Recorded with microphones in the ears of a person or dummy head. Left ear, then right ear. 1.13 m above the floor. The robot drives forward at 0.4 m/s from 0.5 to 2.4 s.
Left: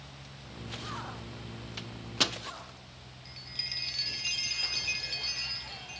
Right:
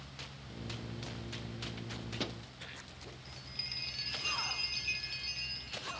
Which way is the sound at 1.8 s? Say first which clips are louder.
Left 13 dB; 35° left (ahead or behind).